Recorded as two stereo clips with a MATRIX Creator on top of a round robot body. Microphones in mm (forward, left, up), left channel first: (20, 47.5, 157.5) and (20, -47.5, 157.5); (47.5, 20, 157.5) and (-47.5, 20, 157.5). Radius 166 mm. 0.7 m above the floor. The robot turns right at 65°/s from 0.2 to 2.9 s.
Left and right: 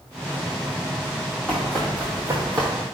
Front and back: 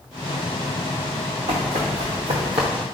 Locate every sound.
1.5 s running footsteps: 160° left, 2.0 m; by 2.7 s 140° right, 1.2 m